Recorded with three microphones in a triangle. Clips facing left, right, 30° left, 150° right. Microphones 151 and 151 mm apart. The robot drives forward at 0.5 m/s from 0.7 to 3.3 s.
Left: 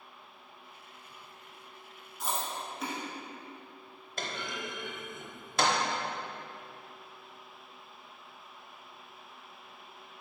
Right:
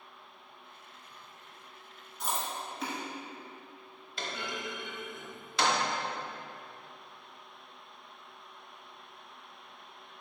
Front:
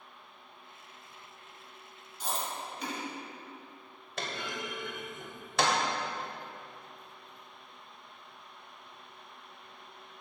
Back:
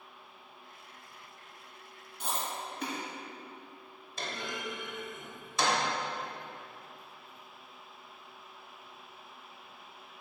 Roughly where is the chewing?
Behind.